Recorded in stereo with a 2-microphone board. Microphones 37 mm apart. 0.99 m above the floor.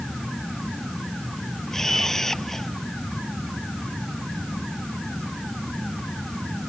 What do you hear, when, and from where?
1.7 s a camera shutter: 10° left (ahead or behind)